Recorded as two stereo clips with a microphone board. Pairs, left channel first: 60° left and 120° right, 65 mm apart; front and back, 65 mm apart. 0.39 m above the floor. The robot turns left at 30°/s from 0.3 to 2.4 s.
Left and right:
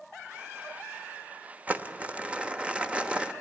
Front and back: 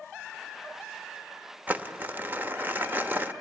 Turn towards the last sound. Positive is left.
turn(degrees=-175)